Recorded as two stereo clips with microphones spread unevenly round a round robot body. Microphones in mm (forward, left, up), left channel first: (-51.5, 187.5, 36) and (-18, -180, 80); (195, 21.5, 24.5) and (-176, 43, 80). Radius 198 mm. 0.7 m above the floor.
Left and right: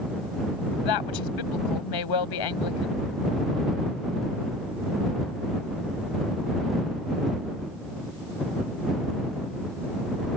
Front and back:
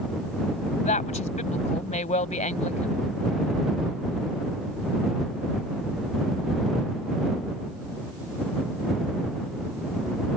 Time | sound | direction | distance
0.8 | a woman speaking | 70° left | ?